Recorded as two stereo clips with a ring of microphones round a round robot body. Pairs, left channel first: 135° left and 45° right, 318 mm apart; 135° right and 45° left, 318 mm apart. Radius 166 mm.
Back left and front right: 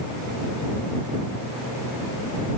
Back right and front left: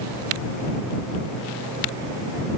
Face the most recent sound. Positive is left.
No sound to turn to.